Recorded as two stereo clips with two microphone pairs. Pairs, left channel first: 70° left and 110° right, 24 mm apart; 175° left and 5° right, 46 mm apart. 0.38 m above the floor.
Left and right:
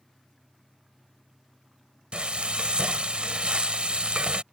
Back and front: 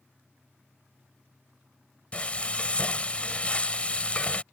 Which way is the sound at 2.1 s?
135° right.